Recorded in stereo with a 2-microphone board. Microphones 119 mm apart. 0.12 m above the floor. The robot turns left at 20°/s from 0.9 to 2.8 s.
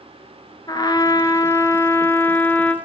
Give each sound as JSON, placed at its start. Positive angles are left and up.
{"t": 0.7, "sound": "a trumpet", "azimuth_deg": 55, "distance_m": 1.0}